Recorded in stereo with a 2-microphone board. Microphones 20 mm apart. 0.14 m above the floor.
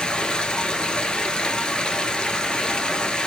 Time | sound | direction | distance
0.0 | running water | 50° left (ahead or behind) | 0.9 m